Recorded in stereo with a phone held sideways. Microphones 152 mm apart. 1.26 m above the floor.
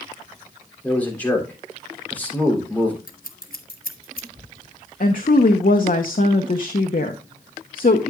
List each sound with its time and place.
0.8 s a man speaking: 10° left (ahead or behind), 3.5 m
3.1 s scissors: 75° left (ahead or behind), 1.4 m
5.0 s a woman speaking: 65° left (ahead or behind), 0.9 m